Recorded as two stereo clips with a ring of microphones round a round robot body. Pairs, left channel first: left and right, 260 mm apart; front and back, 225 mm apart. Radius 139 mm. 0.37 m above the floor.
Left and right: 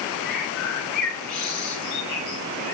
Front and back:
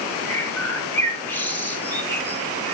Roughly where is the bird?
Left.